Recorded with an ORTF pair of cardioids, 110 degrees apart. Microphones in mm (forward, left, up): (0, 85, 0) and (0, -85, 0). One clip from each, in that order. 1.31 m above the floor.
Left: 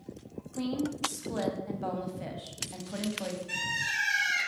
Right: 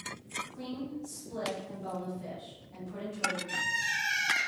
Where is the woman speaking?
60° left, 0.8 m.